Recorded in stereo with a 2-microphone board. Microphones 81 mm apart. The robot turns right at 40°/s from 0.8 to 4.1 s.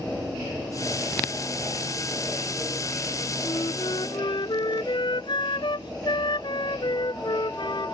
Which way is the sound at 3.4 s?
70° left (ahead or behind).